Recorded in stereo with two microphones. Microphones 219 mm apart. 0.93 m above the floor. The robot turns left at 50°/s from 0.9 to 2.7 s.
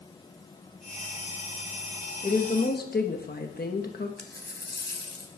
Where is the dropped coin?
50° left (ahead or behind), 1.2 m.